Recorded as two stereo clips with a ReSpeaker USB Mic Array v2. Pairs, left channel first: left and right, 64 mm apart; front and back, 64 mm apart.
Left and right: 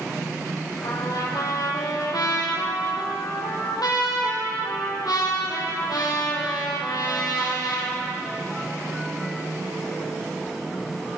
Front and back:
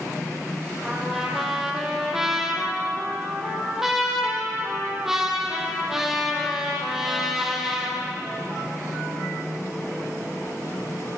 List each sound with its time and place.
0.8 s a trumpet: 95° left, 5 m